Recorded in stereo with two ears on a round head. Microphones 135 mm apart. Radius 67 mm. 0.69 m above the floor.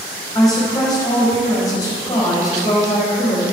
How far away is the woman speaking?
About 4.5 m.